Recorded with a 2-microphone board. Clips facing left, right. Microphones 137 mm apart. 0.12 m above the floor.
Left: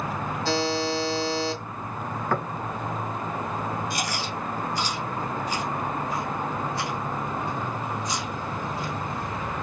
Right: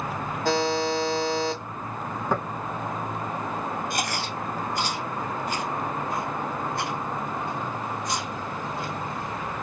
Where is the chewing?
55° right (ahead or behind), 1.2 m.